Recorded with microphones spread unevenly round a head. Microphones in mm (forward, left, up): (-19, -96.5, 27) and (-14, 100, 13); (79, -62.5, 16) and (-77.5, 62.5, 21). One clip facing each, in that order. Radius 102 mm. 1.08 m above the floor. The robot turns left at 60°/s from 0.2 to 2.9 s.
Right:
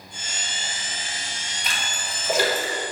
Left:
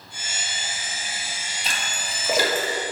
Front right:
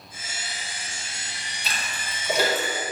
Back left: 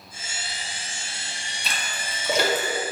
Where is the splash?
150° left, 1.3 m; by 2.7 s 85° left, 1.3 m.